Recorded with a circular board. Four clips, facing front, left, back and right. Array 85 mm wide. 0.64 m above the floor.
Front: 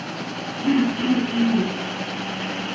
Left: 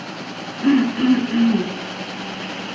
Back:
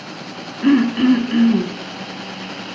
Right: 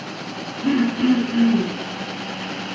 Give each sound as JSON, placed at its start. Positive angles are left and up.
{"t": 0.6, "sound": "throat clearing", "azimuth_deg": 155, "distance_m": 3.0}